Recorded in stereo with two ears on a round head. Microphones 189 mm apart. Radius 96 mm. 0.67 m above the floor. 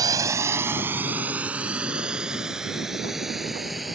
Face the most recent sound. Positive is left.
turn(degrees=0)  # may be behind; listen again after turning